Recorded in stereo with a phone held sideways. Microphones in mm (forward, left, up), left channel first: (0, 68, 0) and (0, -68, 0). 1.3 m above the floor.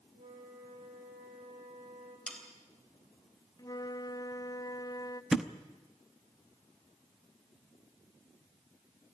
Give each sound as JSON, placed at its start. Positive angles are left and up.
{"t": 0.1, "sound": "a flute", "side_deg": -75, "distance_m": 9.5}
{"t": 2.3, "sound": "sawing", "side_deg": 5, "distance_m": 3.5}
{"t": 3.6, "sound": "a flute", "side_deg": 25, "distance_m": 0.7}
{"t": 5.3, "sound": "a thud", "side_deg": -5, "distance_m": 0.8}